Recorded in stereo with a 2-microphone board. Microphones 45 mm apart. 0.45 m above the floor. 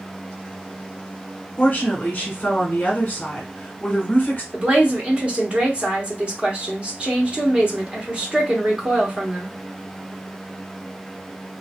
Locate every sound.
1.6 s a woman speaking: 35° left (ahead or behind), 1.1 m
4.5 s a woman speaking: 25° right (ahead or behind), 1.0 m